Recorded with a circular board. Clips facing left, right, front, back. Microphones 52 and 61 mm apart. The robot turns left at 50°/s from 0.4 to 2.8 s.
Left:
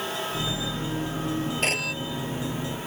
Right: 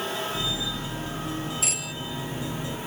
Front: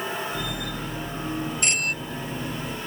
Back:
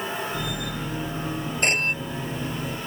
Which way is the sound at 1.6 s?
135° left.